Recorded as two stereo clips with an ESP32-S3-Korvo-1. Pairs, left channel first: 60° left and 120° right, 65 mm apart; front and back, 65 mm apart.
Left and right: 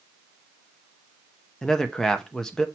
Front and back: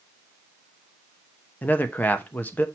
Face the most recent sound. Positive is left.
turn(degrees=-10)